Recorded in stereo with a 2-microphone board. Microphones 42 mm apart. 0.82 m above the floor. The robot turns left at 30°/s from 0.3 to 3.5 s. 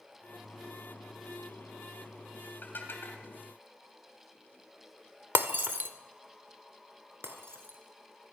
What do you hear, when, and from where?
2.6 s dishes clattering: 50° left (ahead or behind), 3 m; by 3.2 s 70° left (ahead or behind), 3 m
5.3 s breaking glass: 55° right (ahead or behind), 1.3 m
7.2 s breaking glass: 70° right (ahead or behind), 3 m